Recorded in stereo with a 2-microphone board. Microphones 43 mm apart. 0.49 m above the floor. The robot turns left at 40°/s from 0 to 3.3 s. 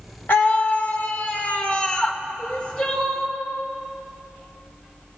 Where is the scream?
95° left, 1.1 m; by 2.2 s 20° left, 1.1 m.